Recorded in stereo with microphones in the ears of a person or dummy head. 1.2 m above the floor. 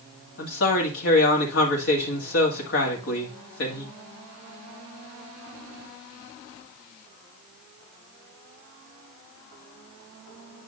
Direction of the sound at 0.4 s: 65° left (ahead or behind).